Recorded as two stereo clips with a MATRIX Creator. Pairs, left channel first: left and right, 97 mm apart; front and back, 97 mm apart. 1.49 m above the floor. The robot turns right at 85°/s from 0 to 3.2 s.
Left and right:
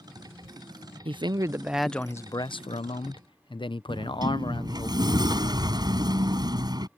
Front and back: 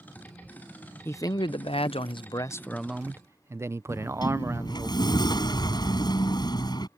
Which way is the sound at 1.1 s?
65° right.